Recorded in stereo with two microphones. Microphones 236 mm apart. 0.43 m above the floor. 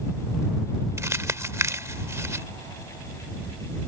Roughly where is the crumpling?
Centre.